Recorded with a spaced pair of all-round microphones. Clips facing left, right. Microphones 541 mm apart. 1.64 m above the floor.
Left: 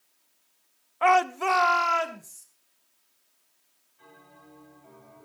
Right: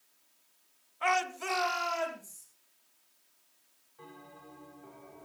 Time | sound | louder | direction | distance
1.0 | a shout | left 10 dB | 85° left | 0.8 m
4.0 | a bell | right 3 dB | 85° right | 8 m